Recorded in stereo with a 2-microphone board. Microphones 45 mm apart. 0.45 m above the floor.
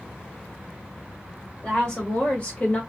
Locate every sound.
1.6 s a woman speaking: 20° left (ahead or behind), 1.7 m; by 2.8 s 35° left (ahead or behind), 1.0 m